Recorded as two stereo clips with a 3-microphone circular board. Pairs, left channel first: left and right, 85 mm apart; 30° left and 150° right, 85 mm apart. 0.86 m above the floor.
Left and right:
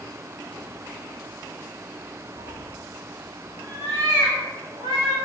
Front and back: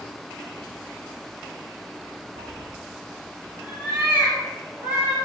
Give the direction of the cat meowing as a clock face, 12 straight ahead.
4 o'clock.